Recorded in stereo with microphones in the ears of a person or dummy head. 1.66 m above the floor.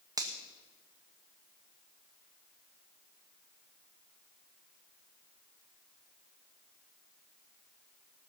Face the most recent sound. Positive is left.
turn(degrees=-20)  # may be behind; listen again after turning